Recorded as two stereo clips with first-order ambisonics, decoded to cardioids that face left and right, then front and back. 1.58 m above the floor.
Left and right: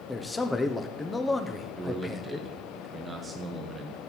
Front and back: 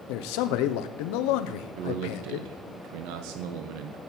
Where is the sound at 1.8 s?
165° right, 1.1 m.